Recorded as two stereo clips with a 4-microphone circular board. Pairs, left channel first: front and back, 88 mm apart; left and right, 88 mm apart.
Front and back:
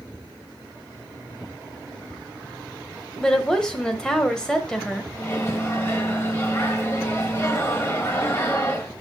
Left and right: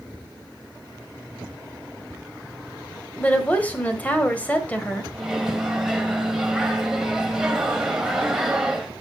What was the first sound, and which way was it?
A woman speaking, 60° left.